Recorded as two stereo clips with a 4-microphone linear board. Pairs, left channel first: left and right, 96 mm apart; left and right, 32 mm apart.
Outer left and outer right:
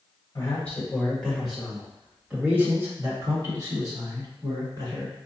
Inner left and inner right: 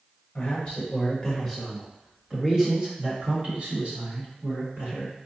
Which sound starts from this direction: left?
A man speaking, at 0.3 s.